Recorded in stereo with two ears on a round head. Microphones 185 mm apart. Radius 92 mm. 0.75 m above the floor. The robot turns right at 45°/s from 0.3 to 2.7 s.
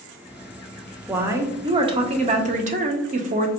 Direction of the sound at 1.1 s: 170° right.